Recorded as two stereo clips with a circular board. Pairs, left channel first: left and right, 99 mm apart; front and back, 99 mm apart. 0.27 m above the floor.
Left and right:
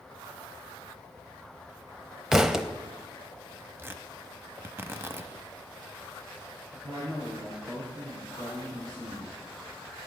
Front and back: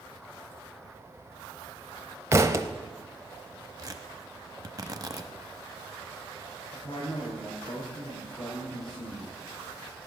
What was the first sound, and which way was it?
A thud, 170° right.